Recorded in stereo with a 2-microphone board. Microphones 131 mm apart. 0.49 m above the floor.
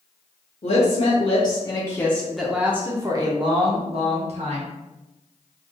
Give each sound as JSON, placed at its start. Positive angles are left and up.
{"t": 0.6, "sound": "a woman speaking", "side_deg": 50, "distance_m": 1.2}